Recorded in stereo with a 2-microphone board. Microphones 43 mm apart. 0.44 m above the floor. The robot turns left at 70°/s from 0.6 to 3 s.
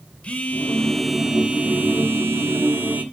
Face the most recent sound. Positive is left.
turn(degrees=-135)